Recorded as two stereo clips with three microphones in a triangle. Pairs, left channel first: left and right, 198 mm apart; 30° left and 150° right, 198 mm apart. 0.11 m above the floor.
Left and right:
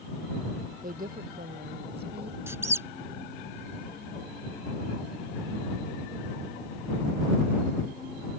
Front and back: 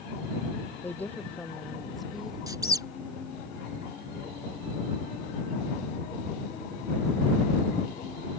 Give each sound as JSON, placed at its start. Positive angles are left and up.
{"t": 0.8, "sound": "a woman speaking", "azimuth_deg": -50}
{"t": 2.5, "sound": "a squeak", "azimuth_deg": -140}